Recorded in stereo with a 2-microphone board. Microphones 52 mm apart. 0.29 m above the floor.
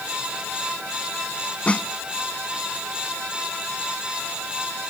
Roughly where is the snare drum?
Left.